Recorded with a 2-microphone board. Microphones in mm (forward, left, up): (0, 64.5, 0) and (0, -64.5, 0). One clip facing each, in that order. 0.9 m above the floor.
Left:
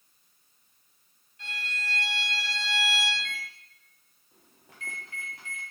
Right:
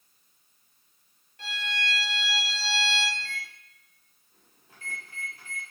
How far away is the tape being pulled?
I don't hear tape being pulled.